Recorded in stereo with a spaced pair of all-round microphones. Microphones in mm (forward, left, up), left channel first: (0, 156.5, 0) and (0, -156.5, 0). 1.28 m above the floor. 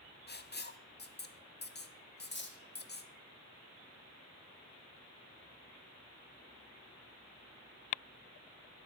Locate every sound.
0.3 s writing: 35° left (ahead or behind), 0.5 m
2.2 s cutlery clinking: 35° left (ahead or behind), 1.2 m